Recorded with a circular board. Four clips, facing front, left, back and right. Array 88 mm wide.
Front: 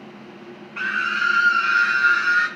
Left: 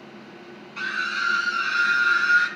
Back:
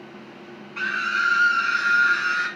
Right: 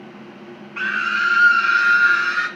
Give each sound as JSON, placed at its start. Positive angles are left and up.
{"t": 0.8, "sound": "a scream", "azimuth_deg": -70, "distance_m": 1.0}